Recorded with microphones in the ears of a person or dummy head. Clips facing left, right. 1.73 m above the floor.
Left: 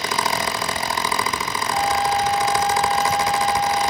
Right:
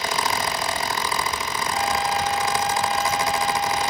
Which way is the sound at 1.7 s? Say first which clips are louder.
Left 4 dB; 40° left (ahead or behind).